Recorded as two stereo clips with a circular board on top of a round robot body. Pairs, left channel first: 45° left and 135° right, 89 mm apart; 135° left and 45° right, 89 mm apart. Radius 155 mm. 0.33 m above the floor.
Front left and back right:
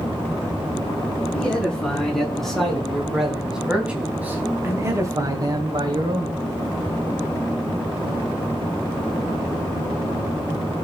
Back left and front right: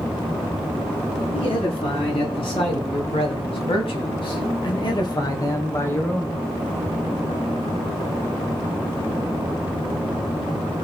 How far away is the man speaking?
About 5.5 m.